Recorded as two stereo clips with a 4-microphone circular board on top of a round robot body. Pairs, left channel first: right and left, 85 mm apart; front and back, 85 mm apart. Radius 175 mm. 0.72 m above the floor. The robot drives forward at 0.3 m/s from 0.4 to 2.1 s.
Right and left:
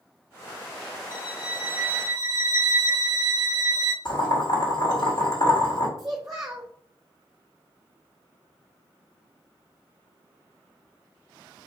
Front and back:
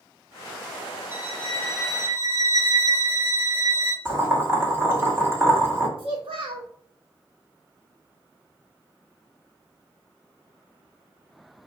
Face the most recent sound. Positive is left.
turn(degrees=175)